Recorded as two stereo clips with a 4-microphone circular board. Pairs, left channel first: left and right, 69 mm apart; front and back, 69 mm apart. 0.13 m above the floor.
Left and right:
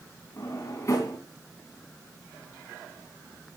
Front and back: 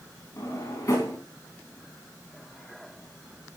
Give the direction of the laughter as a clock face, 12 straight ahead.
No laughter in this recording.